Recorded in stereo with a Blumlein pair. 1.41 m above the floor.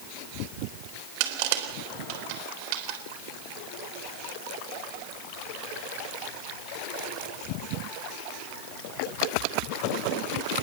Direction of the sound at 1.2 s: 45° right.